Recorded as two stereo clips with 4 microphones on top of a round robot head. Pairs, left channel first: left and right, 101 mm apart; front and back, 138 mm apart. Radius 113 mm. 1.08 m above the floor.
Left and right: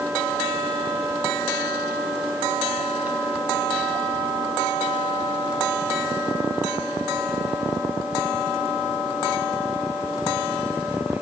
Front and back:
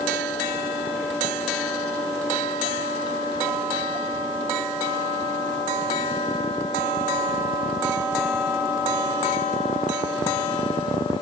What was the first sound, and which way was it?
Only background noise.